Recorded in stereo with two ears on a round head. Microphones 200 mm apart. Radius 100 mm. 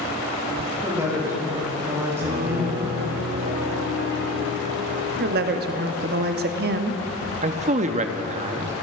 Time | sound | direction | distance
0.8 | a woman speaking | 10° right (ahead or behind) | 3.5 m
2.2 | a piano | 45° right (ahead or behind) | 2 m
5.2 | a woman speaking | 45° right (ahead or behind) | 0.7 m
7.4 | a man speaking | 30° right (ahead or behind) | 0.6 m